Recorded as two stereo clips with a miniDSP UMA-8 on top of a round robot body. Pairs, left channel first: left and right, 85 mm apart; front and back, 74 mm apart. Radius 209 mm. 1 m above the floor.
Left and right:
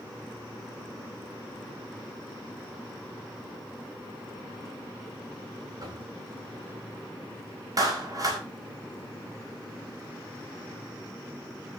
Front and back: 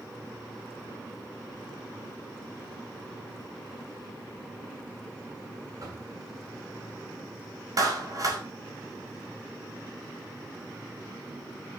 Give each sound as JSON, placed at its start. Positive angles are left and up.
{"t": 5.8, "sound": "knocking", "azimuth_deg": -135, "distance_m": 8.5}
{"t": 7.8, "sound": "a clap", "azimuth_deg": -140, "distance_m": 5.5}